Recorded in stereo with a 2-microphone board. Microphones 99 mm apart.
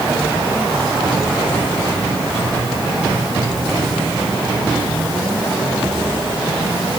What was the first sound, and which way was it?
Only background noise.